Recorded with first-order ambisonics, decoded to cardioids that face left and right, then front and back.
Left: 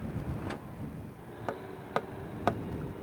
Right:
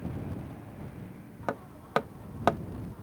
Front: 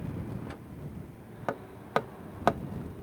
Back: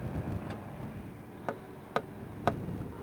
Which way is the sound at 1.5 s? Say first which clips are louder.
Right 4 dB, front 4 dB; 50° right.